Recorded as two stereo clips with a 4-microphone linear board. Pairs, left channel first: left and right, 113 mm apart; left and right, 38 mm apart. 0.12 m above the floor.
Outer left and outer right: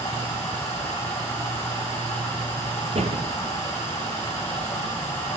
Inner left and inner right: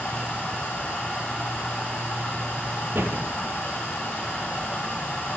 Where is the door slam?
65° right (ahead or behind), 2 m.